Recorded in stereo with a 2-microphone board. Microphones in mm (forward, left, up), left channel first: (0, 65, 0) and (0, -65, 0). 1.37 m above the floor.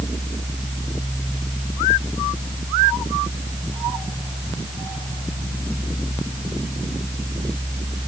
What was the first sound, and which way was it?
Only background noise.